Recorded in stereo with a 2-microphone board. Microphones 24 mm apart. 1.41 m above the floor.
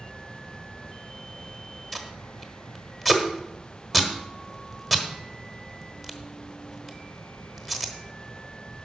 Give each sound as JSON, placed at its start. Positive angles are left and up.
{"t": 1.9, "sound": "tape being pulled", "side_deg": 5, "distance_m": 1.2}